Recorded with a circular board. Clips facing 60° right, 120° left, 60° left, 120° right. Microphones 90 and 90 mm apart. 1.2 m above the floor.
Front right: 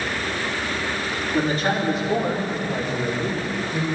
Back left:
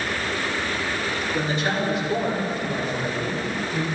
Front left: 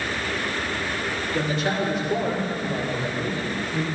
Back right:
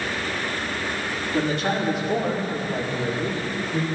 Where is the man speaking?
105° right, 4 m; by 3.9 s 125° right, 5 m.